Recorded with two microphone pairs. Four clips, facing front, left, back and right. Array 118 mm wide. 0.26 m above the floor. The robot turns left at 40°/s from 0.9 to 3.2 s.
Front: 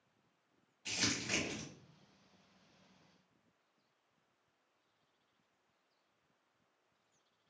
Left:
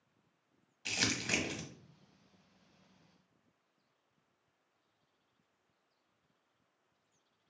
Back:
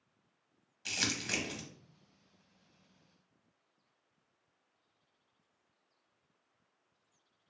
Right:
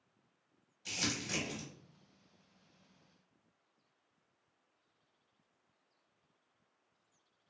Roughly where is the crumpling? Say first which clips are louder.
Left 3 dB, back 1 dB; behind left.